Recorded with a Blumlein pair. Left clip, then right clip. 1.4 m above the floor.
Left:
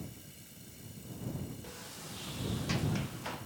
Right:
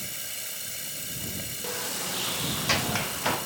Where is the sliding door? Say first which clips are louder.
Right 15 dB; 35° right.